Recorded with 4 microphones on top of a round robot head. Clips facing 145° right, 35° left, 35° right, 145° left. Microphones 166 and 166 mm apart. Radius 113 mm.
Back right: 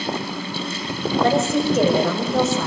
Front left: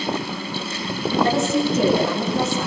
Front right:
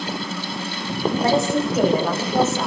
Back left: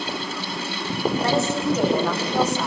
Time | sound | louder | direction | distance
1.2 | a woman speaking | back right 1 dB, front right 4 dB | 110° right | 9.5 m